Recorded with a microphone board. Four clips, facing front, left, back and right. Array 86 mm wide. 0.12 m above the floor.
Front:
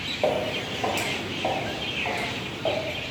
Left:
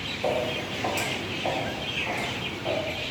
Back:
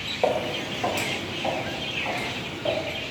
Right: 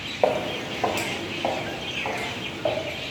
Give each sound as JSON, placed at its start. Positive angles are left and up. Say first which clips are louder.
{"t": 0.2, "sound": "footsteps", "louder": "right 4 dB, back 1 dB", "azimuth_deg": -100, "distance_m": 0.6}